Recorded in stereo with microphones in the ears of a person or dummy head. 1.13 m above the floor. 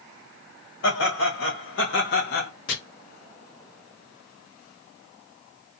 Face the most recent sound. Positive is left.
turn(degrees=60)  # may be behind; listen again after turning